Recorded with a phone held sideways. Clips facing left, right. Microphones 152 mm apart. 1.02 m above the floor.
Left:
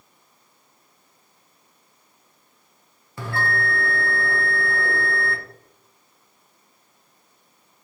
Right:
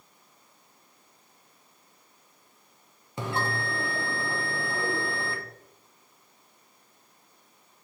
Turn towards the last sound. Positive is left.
turn(degrees=-20)  # may be behind; listen again after turning